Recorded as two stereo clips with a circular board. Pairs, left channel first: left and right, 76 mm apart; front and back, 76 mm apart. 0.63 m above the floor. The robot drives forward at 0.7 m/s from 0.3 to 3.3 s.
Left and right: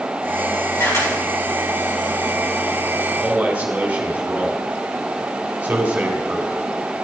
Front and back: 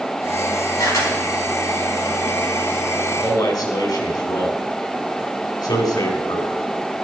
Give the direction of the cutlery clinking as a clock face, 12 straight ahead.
I don't hear cutlery clinking.